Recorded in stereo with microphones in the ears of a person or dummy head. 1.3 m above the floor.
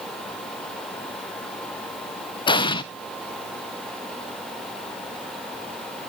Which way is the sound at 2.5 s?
25° left (ahead or behind).